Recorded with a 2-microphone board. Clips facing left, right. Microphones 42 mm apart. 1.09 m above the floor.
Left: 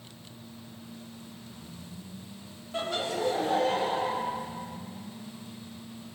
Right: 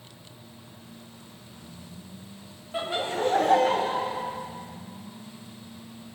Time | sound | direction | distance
2.7 | laughter | 15° right (ahead or behind) | 0.9 m